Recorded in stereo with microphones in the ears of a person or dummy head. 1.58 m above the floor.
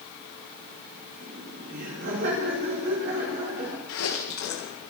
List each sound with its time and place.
1.2 s laughter: 50° right (ahead or behind), 6 m
3.9 s chewing: 70° left (ahead or behind), 1.9 m